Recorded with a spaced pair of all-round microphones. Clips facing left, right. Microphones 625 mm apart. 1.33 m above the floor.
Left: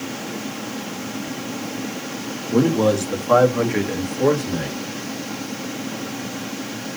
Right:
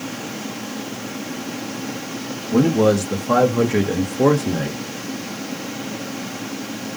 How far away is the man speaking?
About 1.3 m.